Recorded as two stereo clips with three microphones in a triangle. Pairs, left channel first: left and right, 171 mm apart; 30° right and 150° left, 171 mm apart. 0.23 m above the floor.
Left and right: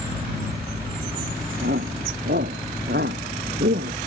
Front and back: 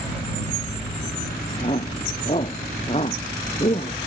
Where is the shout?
85° right.